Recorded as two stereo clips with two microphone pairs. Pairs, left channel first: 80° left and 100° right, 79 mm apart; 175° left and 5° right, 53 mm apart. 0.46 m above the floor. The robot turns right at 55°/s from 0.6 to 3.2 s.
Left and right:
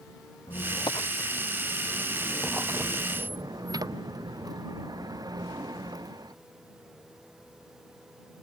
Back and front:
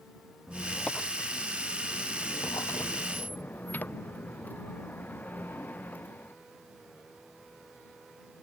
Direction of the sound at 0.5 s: 85° left.